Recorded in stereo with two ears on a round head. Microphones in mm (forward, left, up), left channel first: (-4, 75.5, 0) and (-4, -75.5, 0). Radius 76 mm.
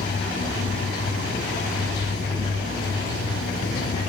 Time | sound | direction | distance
0.0 | running water | 70° left (ahead or behind) | 2.5 m